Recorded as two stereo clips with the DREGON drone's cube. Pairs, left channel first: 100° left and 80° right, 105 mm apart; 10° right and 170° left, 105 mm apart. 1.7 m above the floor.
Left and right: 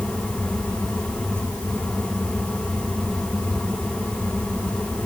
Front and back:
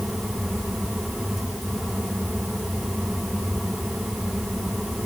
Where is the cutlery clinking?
I don't hear cutlery clinking.